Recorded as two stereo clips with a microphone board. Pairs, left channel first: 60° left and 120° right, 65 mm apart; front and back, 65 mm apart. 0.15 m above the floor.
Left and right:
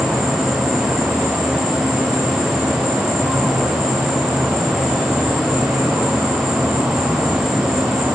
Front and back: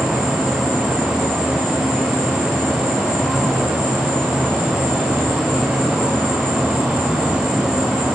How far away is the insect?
About 6 m.